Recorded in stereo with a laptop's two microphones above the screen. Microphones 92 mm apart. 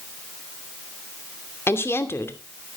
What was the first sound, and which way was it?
A woman speaking, 30° left (ahead or behind).